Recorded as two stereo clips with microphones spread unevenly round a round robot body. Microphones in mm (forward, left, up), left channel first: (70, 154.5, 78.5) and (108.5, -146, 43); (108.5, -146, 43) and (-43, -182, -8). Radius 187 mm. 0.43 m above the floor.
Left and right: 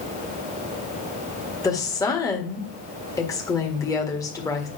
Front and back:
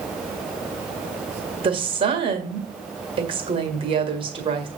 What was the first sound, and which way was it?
A woman speaking, straight behind.